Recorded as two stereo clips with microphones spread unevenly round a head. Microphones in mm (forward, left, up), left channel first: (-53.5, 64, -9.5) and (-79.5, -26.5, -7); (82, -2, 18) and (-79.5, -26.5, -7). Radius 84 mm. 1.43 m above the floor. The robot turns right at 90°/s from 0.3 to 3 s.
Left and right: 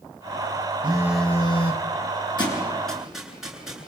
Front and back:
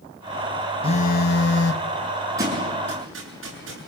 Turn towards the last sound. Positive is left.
turn(degrees=170)